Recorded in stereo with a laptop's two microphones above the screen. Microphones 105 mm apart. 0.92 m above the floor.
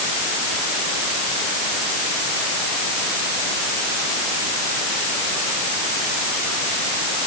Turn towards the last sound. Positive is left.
No sound to turn to.